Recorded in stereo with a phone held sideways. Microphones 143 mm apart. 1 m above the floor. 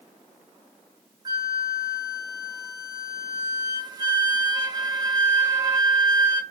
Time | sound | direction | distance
1.2 | a flute | 30° right (ahead or behind) | 1.0 m